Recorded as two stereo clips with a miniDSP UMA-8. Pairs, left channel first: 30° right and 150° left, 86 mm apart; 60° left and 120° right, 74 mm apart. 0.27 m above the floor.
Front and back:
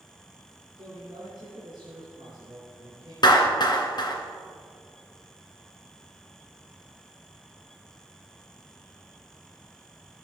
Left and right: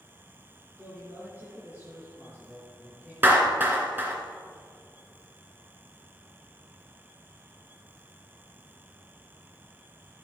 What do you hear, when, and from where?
0.8 s a man speaking: 170° left, 4.5 m
3.2 s a clap: 60° right, 2 m